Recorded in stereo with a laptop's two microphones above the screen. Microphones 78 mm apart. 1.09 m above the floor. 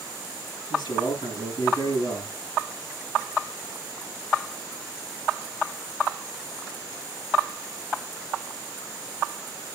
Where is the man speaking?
75° left (ahead or behind), 7 m.